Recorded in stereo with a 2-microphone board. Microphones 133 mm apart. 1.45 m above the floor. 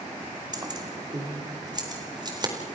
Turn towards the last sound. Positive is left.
turn(degrees=-30)  # may be behind; listen again after turning